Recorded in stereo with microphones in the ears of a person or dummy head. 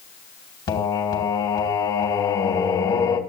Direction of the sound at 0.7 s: 20° left (ahead or behind).